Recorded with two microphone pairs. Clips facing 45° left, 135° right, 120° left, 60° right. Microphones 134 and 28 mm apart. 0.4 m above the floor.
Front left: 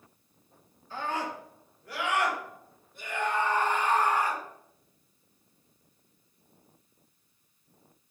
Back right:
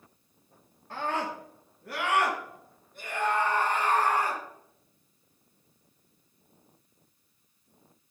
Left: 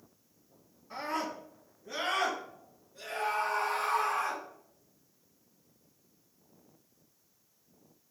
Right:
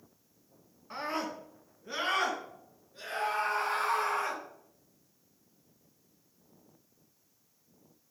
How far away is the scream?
About 3.5 m.